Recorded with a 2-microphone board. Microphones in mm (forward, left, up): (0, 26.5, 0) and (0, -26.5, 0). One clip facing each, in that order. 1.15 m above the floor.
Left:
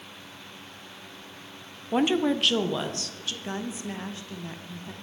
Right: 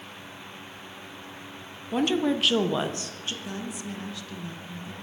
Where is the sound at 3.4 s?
30° left (ahead or behind), 0.8 m.